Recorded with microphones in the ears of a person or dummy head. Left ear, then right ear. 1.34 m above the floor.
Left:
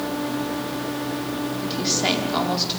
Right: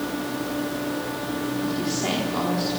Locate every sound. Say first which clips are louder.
1.6 s a woman speaking: left 7 dB; 35° left (ahead or behind), 4 m